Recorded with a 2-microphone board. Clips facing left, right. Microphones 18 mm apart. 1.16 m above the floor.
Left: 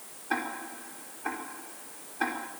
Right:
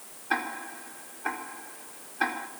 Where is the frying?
I don't hear frying.